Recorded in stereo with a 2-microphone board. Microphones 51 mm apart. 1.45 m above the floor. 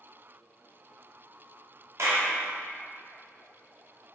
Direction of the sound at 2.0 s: 60° right (ahead or behind).